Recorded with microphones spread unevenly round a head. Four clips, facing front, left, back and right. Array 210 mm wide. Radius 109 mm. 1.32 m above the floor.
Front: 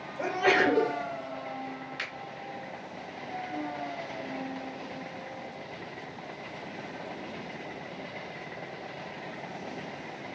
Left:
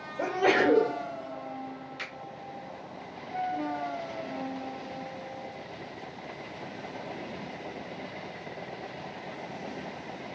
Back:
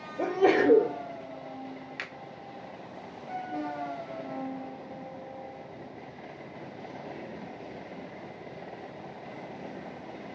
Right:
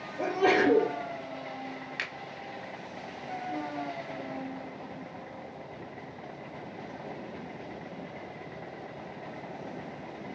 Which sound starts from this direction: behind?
A sneeze, at 0.2 s.